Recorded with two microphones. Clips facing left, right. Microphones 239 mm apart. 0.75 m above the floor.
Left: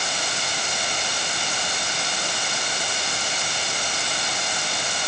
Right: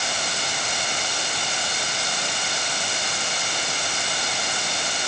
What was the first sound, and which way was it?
Only background noise.